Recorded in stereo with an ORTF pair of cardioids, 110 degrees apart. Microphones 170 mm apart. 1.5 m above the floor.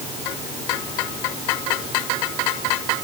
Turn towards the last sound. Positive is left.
No sound to turn to.